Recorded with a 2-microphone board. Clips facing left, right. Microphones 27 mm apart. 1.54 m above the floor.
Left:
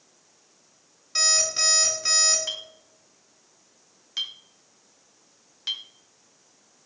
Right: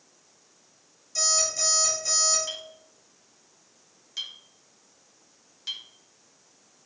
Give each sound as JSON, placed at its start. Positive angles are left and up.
{"t": 1.1, "sound": "an alarm clock", "side_deg": 65, "distance_m": 3.0}
{"t": 2.5, "sound": "a clink", "side_deg": 30, "distance_m": 0.7}